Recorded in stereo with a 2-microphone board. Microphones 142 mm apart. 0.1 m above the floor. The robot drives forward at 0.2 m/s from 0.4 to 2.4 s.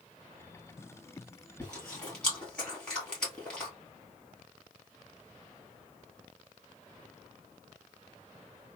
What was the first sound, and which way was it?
Chewing, 5° left (ahead or behind).